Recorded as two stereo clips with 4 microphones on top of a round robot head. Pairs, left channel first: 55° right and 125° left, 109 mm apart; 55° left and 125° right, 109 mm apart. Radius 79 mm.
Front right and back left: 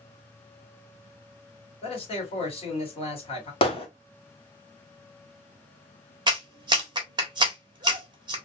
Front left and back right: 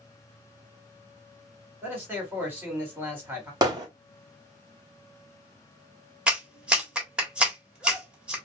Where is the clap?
160° left, 1.3 m.